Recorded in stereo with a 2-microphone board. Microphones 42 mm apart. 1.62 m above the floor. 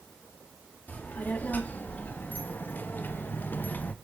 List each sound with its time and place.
0.9 s a child speaking: 40° left (ahead or behind), 2 m